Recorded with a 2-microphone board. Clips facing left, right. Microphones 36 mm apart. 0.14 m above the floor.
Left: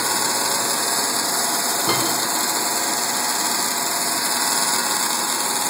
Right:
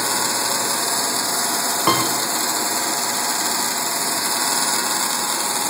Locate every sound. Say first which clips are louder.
1.9 s a piano: right 5 dB; 85° right, 7.5 m